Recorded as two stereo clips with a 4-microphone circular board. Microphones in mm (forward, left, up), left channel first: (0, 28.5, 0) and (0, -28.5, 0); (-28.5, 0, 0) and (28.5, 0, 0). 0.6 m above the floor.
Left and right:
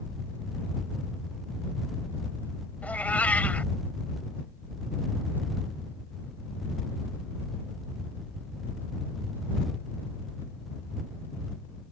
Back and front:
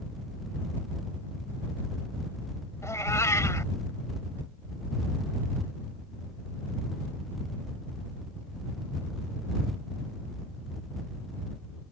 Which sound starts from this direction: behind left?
A cat meowing, at 2.8 s.